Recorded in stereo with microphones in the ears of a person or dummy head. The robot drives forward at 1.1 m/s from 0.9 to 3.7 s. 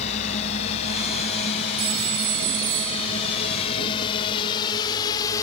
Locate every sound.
0.0 s a drone: 35° left (ahead or behind); by 5.4 s 20° left (ahead or behind)
1.8 s a phone ringing: 75° right (ahead or behind); by 3.4 s 65° right (ahead or behind)